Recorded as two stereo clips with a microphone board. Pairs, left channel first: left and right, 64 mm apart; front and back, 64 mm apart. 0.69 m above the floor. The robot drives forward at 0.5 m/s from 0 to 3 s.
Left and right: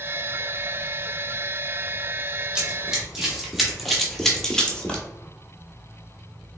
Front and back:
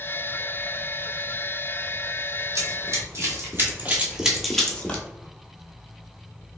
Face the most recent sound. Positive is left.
turn(degrees=30)